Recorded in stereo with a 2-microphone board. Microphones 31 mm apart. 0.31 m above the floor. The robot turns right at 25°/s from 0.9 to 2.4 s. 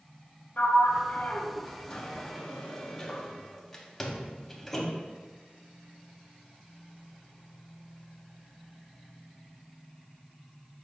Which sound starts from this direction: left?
A sliding door, at 0.6 s.